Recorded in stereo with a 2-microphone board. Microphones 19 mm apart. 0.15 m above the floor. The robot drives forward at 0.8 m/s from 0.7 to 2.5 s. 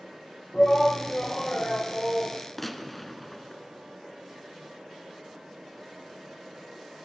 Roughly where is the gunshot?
Centre.